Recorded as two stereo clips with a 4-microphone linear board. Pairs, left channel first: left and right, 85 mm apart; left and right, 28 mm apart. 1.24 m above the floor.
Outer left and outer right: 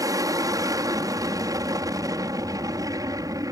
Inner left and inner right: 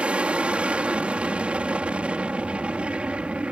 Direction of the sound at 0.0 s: 45° right (ahead or behind).